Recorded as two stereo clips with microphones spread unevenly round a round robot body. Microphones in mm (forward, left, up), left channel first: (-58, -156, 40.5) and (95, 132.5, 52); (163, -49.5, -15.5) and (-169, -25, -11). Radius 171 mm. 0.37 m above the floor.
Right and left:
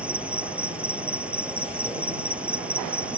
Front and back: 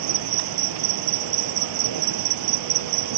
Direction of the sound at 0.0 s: 145° left.